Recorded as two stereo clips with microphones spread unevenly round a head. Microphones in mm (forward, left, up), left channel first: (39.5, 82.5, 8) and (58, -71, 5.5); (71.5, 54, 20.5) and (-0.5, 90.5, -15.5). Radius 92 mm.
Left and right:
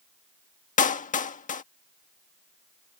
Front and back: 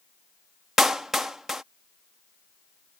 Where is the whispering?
I don't hear whispering.